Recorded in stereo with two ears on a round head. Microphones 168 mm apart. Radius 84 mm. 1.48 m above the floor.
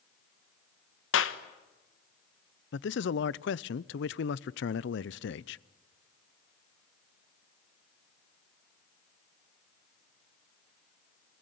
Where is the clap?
75° left (ahead or behind), 1.4 m.